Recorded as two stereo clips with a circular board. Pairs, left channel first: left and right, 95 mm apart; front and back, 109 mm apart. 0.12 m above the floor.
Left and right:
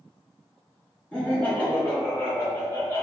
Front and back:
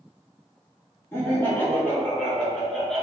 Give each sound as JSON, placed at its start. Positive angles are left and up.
{"t": 1.1, "sound": "laughter", "azimuth_deg": 30, "distance_m": 1.7}